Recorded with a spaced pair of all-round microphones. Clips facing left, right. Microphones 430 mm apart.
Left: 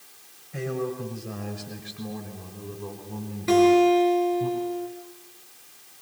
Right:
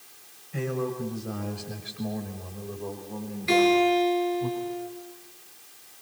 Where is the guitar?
65° left (ahead or behind), 6.5 m.